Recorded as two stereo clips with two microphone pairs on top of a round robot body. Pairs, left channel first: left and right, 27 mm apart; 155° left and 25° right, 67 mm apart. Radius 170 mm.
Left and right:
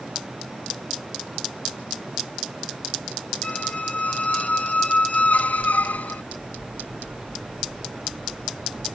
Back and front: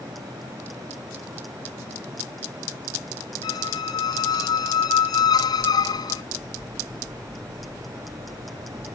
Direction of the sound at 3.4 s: 120° left.